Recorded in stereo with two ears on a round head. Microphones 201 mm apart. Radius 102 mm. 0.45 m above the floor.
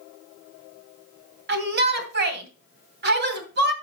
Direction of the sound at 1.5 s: 50° right (ahead or behind).